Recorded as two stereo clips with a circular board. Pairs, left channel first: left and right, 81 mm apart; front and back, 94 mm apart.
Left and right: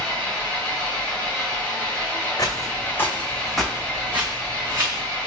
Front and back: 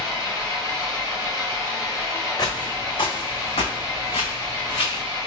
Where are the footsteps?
45° left, 0.9 m; by 5.0 s 35° right, 1.3 m.